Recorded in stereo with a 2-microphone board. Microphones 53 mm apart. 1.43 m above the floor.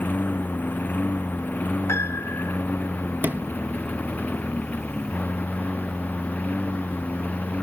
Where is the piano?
60° left (ahead or behind).